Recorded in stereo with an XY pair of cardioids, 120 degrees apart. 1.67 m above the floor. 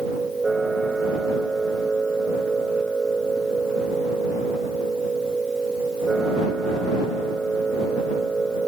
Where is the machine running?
20° right.